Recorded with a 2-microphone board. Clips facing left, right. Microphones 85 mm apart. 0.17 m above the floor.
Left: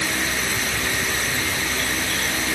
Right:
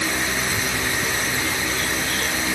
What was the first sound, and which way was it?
Only background noise.